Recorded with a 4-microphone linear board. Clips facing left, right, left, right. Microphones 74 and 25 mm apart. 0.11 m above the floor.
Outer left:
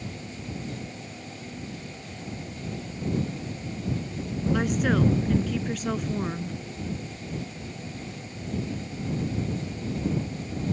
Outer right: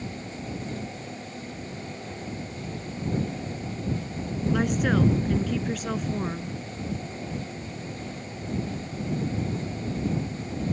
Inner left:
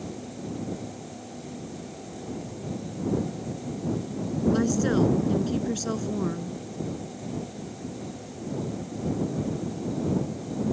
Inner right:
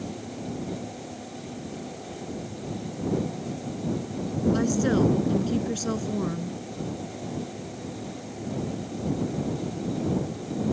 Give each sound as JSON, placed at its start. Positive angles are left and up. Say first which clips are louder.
{"t": 4.5, "sound": "a woman speaking", "louder": "even, even", "side_deg": 0}